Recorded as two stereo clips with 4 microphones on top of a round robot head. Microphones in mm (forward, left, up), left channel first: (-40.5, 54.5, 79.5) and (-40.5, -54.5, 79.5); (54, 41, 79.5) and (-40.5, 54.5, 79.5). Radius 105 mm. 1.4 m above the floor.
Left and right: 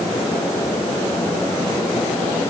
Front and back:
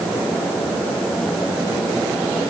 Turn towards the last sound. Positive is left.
No sound to turn to.